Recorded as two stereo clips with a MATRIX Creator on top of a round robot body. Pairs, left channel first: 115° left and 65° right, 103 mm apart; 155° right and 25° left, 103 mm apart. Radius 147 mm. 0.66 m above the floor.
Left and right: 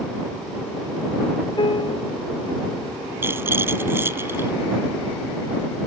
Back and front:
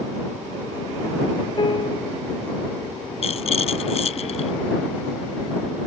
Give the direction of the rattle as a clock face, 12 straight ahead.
5 o'clock.